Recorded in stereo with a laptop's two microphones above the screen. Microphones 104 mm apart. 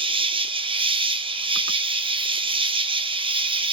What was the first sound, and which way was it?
An insect, 55° right (ahead or behind).